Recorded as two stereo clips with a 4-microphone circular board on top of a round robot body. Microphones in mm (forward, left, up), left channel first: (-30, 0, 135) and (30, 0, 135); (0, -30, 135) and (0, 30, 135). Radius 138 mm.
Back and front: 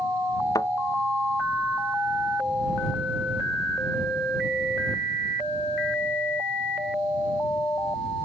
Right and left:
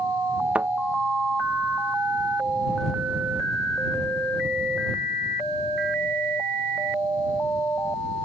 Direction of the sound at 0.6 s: 160° left.